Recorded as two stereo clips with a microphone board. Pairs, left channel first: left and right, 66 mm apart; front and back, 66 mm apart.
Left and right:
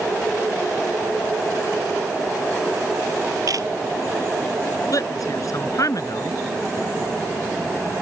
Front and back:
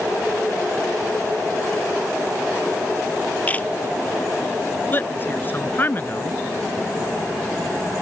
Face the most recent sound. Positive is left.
turn(degrees=60)